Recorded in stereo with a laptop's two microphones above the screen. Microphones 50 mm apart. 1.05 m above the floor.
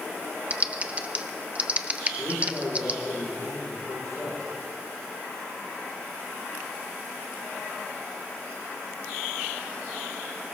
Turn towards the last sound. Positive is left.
turn(degrees=75)  # may be behind; listen again after turning